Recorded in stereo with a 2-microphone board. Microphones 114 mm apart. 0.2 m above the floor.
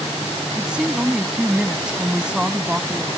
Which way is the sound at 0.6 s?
10° right (ahead or behind).